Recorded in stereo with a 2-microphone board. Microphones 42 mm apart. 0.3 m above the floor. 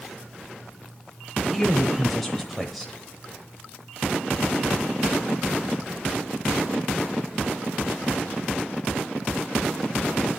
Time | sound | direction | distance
1.5 | a man speaking | 5° left (ahead or behind) | 0.9 m